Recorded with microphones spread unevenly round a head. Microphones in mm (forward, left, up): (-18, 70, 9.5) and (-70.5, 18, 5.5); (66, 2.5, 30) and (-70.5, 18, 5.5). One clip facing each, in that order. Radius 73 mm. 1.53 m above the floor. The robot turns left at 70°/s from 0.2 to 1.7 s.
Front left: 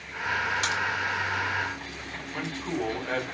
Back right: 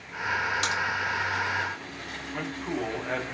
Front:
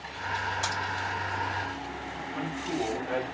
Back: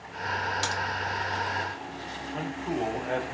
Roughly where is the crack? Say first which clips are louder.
Even, back 1 dB; behind right.